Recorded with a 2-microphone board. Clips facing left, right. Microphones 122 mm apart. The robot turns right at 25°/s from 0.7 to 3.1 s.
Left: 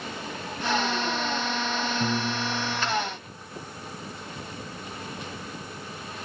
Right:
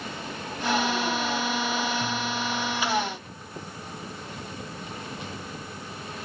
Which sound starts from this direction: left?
A piano, at 2.0 s.